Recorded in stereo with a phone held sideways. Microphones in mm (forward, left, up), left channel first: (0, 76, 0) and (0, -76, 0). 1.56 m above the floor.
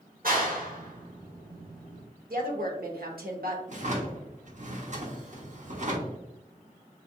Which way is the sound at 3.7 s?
55° right (ahead or behind).